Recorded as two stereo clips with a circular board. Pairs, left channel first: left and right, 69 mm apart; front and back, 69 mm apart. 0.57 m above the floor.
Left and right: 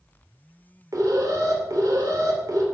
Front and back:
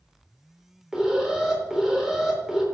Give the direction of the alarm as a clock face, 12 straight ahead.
3 o'clock.